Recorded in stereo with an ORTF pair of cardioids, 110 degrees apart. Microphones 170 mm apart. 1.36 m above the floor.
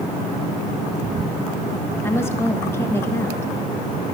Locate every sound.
2.0 s a woman speaking: 15° left, 1.4 m